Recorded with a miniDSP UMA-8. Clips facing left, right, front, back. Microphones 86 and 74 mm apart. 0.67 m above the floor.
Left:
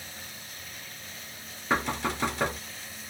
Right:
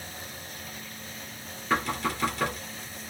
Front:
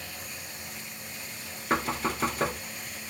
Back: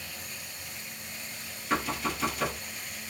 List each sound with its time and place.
1.7 s knocking: 30° left, 1.0 m